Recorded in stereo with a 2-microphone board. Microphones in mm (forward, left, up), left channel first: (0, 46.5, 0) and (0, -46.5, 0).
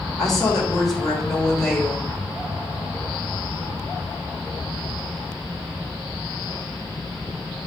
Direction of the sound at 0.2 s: 5° left (ahead or behind).